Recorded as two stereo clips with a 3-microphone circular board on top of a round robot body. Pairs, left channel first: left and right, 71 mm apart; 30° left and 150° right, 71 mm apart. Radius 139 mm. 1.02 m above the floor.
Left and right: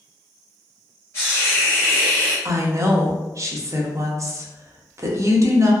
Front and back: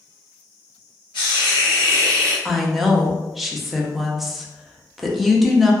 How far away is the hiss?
About 0.6 m.